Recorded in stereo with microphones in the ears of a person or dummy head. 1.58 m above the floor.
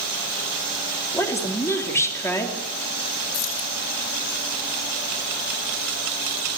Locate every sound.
1.1 s a woman speaking: 15° left (ahead or behind), 4 m
3.3 s keys jangling: 70° left (ahead or behind), 4.5 m